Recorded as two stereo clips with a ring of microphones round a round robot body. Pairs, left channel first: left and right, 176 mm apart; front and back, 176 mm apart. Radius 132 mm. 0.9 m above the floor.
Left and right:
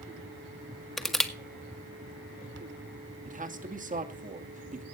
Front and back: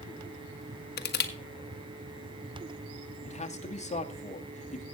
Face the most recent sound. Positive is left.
turn(degrees=-50)